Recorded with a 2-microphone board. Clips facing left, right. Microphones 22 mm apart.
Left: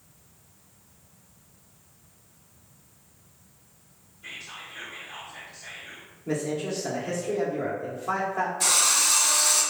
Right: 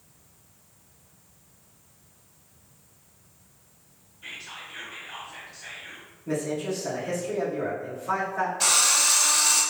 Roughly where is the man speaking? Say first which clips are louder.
Even; left.